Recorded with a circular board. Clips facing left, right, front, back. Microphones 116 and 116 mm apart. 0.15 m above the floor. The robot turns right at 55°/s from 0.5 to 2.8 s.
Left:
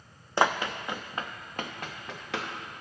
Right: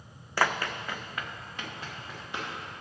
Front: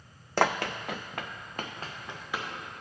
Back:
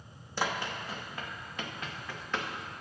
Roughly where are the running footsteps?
Ahead left.